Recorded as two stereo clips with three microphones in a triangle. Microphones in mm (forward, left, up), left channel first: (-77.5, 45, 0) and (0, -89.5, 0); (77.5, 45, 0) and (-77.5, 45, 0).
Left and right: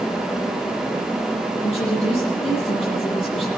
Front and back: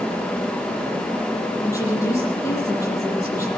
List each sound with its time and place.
1.6 s a woman speaking: 70° left, 9 m